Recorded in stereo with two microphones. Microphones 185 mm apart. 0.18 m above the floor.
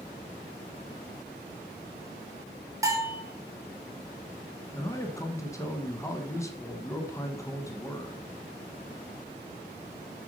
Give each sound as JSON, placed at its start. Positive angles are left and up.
{"t": 2.8, "sound": "a bell", "side_deg": -15, "distance_m": 1.5}
{"t": 4.7, "sound": "a man speaking", "side_deg": 15, "distance_m": 1.0}